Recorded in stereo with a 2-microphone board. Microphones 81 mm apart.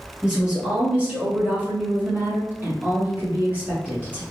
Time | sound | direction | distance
0.2 | a woman speaking | 15° right (ahead or behind) | 1.5 m